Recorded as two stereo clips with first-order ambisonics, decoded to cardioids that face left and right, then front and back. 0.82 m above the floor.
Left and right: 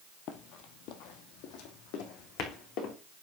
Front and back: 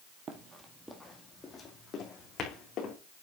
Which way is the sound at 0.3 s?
125° left.